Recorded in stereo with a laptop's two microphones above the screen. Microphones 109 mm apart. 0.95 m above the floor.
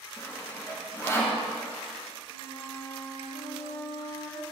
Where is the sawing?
30° left (ahead or behind), 2.5 m.